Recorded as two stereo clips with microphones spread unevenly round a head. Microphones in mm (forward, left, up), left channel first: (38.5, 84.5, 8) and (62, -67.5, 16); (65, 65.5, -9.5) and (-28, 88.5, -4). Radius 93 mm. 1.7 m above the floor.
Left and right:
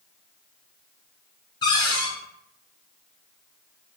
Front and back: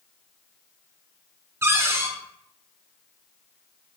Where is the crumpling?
No crumpling in this recording.